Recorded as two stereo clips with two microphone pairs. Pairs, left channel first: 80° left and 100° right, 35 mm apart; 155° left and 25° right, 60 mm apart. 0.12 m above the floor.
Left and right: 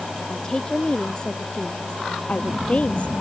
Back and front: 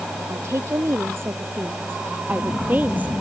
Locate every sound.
0.3 s a woman speaking: 10° left; by 3.1 s 35° left